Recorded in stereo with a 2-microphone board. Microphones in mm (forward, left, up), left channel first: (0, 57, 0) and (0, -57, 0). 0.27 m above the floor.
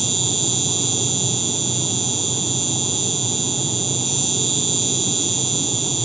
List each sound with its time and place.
0.0 s an insect: centre (ahead or behind)